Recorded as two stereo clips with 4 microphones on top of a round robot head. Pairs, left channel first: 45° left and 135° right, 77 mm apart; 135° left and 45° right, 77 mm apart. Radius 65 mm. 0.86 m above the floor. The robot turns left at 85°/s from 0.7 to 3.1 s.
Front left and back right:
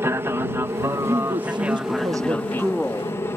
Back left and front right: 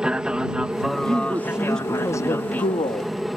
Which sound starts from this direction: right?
A woman speaking, at 1.1 s.